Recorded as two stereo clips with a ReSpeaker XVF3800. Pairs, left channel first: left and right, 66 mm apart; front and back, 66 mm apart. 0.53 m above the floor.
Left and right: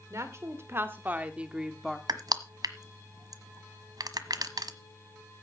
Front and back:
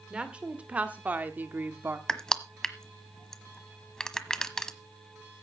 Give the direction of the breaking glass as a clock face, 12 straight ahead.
No breaking glass in this recording.